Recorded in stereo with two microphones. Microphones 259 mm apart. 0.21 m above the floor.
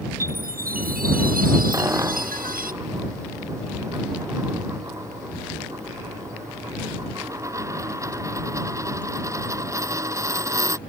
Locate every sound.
0.2 s a chime: 35° right (ahead or behind)
1.7 s a dropped coin: 10° right (ahead or behind)